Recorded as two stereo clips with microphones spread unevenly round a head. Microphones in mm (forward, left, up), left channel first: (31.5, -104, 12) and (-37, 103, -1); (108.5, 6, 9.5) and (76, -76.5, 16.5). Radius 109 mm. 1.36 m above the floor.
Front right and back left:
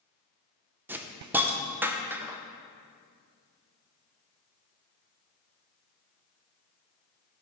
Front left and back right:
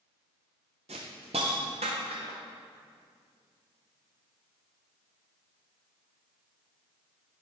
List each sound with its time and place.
0.9 s a hiss: 170° right, 0.7 m